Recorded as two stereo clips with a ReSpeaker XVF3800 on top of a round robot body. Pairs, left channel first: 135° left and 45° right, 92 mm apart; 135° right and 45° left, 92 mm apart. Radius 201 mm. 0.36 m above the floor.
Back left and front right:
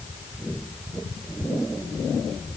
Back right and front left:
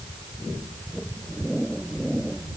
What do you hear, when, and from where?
Only background noise.